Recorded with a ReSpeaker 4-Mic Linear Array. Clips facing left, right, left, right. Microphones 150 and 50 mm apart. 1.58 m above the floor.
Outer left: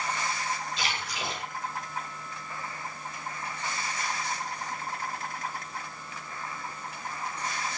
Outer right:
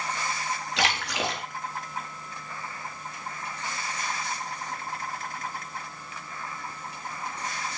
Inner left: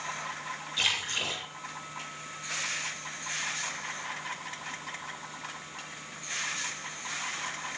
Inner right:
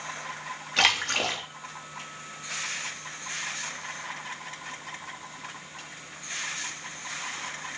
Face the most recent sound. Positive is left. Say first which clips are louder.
# outer right 6 dB, inner right 7 dB
turn(degrees=-85)